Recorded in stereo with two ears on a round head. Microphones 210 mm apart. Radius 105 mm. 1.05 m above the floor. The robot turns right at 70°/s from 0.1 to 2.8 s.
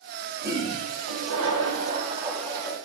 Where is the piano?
No piano in this recording.